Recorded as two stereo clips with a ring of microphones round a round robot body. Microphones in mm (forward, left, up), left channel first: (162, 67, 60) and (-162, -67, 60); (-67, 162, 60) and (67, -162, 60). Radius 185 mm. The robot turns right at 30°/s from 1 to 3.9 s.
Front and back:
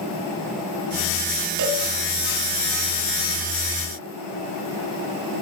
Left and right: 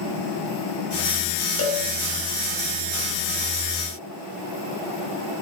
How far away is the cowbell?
About 4.5 m.